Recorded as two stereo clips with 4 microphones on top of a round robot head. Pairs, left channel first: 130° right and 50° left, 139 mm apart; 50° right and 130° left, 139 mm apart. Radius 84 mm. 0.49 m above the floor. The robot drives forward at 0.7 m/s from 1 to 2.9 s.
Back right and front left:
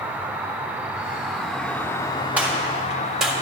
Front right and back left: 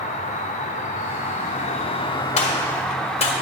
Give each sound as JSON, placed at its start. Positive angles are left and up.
{"t": 0.0, "sound": "an insect", "azimuth_deg": -30, "distance_m": 1.2}
{"t": 2.4, "sound": "a gunshot", "azimuth_deg": -30, "distance_m": 1.9}